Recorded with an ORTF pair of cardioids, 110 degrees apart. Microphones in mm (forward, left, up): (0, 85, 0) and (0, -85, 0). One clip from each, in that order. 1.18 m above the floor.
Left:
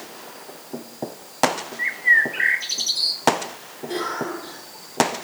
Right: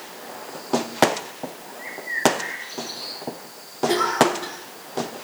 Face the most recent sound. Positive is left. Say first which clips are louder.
# right 7 dB
turn(degrees=-65)